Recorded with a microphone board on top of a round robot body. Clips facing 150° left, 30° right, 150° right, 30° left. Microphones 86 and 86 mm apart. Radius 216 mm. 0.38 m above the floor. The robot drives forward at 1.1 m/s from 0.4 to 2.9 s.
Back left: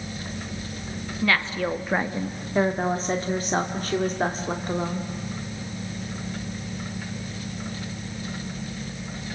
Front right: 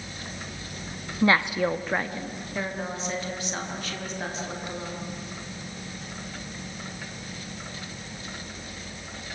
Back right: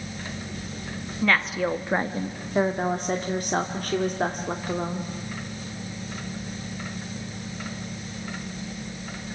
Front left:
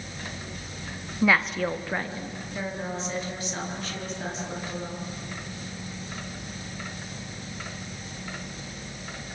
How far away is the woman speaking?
About 1.3 m.